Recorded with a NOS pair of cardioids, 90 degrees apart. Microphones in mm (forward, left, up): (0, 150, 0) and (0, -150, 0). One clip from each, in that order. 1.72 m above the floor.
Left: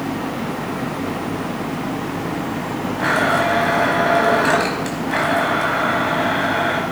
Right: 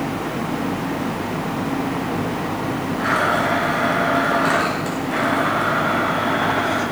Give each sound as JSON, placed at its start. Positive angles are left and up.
{"t": 3.0, "sound": "a blender", "azimuth_deg": 40, "distance_m": 5.0}